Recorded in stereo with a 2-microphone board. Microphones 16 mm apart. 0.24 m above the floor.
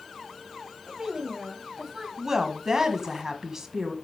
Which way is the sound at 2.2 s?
35° right (ahead or behind).